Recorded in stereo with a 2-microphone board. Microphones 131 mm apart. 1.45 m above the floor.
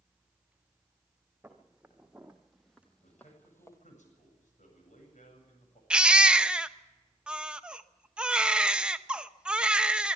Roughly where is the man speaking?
Left.